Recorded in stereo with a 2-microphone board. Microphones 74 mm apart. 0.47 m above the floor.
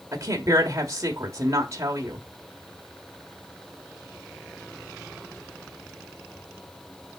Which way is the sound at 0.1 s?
45° right (ahead or behind).